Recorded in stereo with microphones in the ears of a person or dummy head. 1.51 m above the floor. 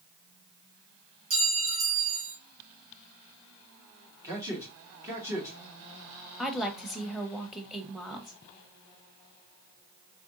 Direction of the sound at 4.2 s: 15° right (ahead or behind).